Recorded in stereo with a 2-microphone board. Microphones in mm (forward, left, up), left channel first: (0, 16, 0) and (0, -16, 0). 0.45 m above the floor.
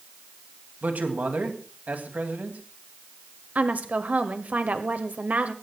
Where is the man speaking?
60° right (ahead or behind), 3 m.